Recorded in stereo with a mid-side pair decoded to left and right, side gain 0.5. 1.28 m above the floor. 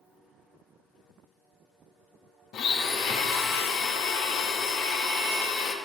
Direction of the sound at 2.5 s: 70° left.